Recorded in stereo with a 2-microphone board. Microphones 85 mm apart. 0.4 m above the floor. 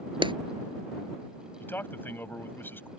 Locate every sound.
0.2 s a clap: 70° right (ahead or behind)
1.6 s a man speaking: 25° left (ahead or behind)